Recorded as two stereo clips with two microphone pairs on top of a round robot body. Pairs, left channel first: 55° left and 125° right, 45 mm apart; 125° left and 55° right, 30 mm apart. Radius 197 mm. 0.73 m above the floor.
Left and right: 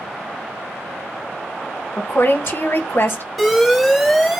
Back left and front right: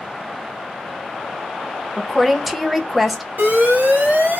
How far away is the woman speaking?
About 1.0 m.